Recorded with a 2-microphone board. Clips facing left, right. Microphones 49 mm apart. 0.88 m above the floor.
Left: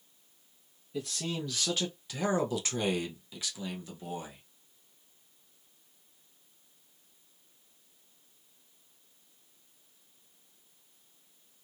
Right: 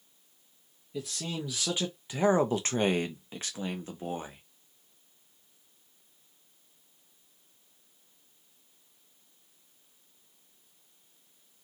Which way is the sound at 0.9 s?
5° right (ahead or behind).